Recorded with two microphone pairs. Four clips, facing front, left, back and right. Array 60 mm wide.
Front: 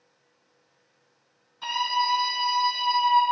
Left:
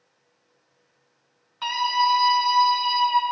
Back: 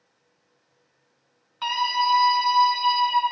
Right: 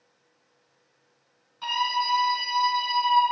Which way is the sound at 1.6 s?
140° left.